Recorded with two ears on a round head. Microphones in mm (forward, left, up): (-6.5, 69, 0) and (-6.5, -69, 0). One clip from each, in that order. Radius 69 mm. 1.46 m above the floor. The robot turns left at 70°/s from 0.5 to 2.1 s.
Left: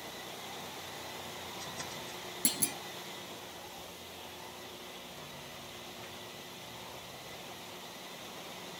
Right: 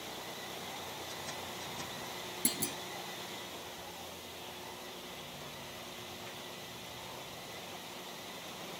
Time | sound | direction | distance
2.5 | a clunk | 15° left (ahead or behind) | ?